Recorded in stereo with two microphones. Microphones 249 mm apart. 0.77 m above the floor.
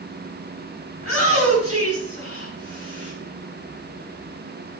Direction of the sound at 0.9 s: 65° right (ahead or behind).